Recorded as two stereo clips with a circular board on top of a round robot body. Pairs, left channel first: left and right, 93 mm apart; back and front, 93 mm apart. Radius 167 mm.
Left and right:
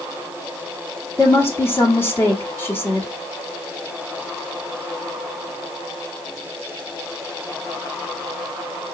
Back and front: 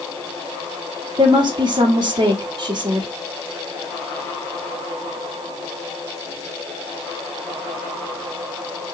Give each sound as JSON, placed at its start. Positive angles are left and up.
{"t": 1.2, "sound": "a woman speaking", "azimuth_deg": 30, "distance_m": 1.3}